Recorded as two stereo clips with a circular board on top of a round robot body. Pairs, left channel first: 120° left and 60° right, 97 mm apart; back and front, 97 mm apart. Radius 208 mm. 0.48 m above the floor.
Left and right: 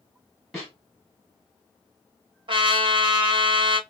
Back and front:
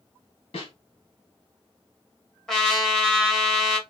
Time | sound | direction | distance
0.5 | a snare drum | 150° right | 1.9 m
2.5 | a trumpet | 95° right | 1.3 m